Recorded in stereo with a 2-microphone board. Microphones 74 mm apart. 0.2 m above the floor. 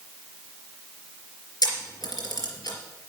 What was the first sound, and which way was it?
A camera shutter, 65° left (ahead or behind).